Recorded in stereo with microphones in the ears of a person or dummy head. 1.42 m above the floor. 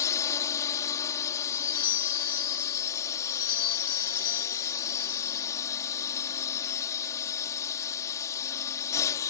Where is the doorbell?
30° left (ahead or behind).